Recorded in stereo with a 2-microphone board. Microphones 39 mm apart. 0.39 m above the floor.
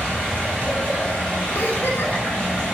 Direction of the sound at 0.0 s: 40° left (ahead or behind).